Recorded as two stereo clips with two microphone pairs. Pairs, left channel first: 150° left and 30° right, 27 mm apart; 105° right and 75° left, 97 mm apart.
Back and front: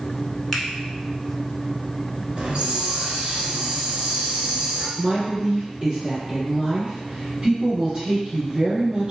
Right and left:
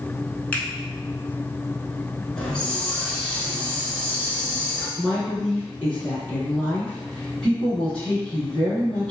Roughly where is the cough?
No cough in this recording.